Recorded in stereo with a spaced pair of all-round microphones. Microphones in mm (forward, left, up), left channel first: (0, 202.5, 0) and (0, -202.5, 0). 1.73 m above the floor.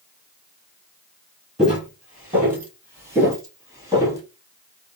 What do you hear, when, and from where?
1.6 s footsteps: centre (ahead or behind), 1.8 m; by 4.2 s 10° right (ahead or behind), 1.9 m